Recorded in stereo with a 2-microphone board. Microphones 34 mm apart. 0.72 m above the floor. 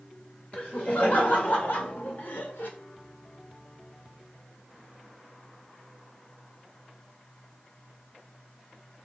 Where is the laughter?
60° left (ahead or behind), 2.5 m; by 2.7 s 75° left (ahead or behind), 1.8 m.